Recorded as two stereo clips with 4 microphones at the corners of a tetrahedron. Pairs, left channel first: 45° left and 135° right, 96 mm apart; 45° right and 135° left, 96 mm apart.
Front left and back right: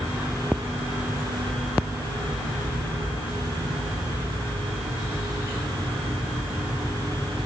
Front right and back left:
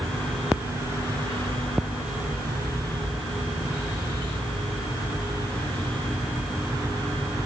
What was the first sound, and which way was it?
Only background noise.